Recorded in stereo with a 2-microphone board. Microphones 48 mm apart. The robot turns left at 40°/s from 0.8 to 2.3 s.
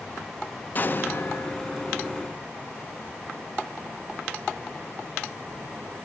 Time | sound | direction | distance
0.8 | an explosion | 35° left (ahead or behind) | 0.6 m